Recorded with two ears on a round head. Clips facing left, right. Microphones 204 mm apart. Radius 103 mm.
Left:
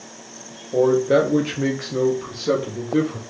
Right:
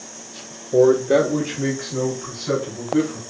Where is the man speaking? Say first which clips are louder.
Right 2 dB; 25° right (ahead or behind), 0.6 m; by 3.2 s 55° left (ahead or behind), 1.8 m.